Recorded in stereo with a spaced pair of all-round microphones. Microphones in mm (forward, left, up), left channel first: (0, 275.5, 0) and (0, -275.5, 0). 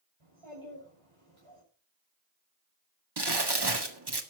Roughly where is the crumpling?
Right.